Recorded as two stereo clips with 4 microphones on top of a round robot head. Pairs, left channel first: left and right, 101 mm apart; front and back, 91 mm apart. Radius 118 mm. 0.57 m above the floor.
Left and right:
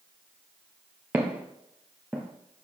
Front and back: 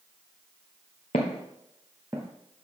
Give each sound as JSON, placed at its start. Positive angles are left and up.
{"t": 1.1, "sound": "footsteps", "azimuth_deg": -20, "distance_m": 0.7}